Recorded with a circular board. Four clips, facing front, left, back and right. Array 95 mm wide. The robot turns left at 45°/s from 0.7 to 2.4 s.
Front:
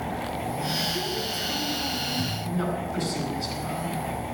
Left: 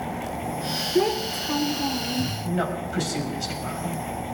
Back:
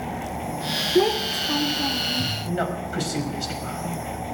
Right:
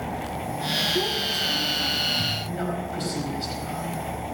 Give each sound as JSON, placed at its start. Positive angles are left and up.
{"t": 0.9, "sound": "a child speaking", "azimuth_deg": 155, "distance_m": 0.6}
{"t": 2.4, "sound": "a man speaking", "azimuth_deg": 155, "distance_m": 5.0}